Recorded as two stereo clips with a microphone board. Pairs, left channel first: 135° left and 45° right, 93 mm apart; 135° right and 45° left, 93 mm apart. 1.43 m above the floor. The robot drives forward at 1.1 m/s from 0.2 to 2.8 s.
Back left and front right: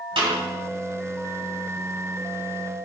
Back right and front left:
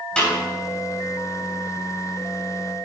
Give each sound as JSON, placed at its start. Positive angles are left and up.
{"t": 0.2, "sound": "a snare drum", "azimuth_deg": -55, "distance_m": 4.5}